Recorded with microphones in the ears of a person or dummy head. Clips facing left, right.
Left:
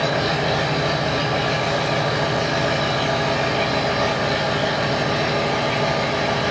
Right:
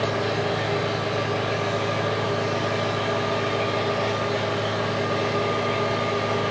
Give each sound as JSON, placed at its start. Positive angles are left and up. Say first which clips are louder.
{"t": 0.0, "sound": "an engine running", "louder": "left 3 dB", "side_deg": 65, "distance_m": 5.5}